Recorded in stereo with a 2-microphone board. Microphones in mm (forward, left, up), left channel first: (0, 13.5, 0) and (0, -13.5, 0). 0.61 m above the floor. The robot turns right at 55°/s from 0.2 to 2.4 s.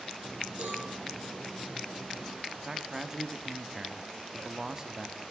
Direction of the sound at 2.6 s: 20° right (ahead or behind).